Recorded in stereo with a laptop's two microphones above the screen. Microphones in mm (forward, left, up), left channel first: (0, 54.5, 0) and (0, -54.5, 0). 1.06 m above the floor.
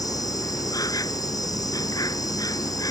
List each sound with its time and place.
0.0 s an insect: 35° left (ahead or behind)